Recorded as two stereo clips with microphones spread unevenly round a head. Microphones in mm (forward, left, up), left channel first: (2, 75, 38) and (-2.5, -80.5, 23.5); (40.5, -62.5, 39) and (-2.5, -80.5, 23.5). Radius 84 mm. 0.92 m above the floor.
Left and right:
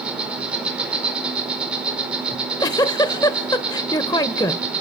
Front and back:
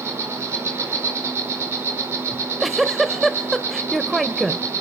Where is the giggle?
65° left, 0.7 m.